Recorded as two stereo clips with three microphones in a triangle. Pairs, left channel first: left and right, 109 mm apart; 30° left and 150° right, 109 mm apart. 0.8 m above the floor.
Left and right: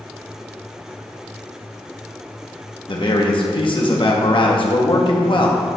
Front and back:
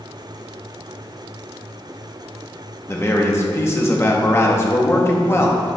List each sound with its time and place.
2.9 s a man speaking: 85° left, 1.1 m